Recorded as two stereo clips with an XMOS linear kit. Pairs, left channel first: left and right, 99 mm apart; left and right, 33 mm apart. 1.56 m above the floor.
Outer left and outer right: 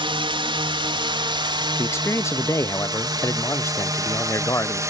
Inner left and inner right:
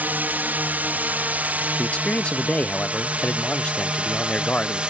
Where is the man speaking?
30° left (ahead or behind).